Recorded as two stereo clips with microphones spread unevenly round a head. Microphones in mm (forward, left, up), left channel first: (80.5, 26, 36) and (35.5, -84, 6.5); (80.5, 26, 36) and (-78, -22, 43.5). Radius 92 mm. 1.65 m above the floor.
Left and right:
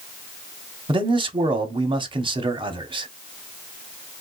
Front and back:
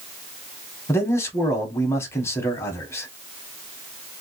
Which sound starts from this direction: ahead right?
A man speaking, at 0.9 s.